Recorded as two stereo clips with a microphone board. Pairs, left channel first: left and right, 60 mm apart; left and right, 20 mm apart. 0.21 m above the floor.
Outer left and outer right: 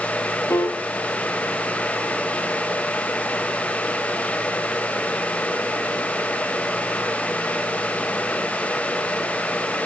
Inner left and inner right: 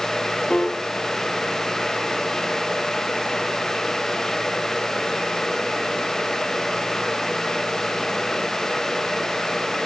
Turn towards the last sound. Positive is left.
turn(degrees=45)  # may be behind; listen again after turning